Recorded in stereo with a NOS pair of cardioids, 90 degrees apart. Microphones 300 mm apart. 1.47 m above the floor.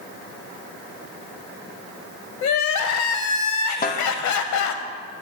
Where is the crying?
65° left, 0.6 m.